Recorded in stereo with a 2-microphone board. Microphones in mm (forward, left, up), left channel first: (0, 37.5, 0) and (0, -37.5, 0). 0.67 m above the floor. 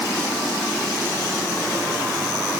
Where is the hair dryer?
No hair dryer in this recording.